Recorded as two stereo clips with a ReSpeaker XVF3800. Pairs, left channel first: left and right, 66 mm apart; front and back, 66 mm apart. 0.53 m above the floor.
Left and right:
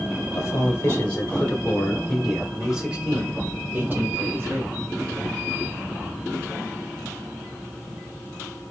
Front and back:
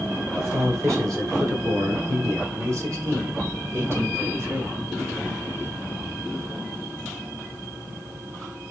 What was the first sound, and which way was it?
A man speaking, 135° left.